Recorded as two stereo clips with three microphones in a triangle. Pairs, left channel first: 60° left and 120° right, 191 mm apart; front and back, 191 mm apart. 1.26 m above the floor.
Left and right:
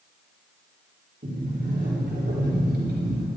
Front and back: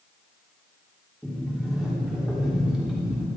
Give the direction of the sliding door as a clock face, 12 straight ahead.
3 o'clock.